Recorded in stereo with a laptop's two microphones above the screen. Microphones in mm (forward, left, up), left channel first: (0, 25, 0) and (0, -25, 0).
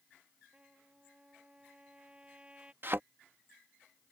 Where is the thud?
45° right (ahead or behind).